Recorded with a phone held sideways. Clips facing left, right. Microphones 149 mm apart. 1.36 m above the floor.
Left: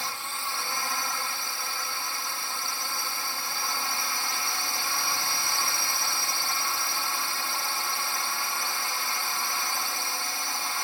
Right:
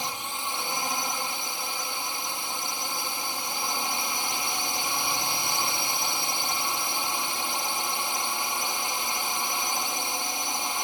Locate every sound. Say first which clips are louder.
0.0 s a drone: right 2 dB; 20° right (ahead or behind)